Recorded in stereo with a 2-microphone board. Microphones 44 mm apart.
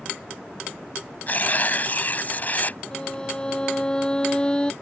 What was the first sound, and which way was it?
Tearing paper, 40° left (ahead or behind).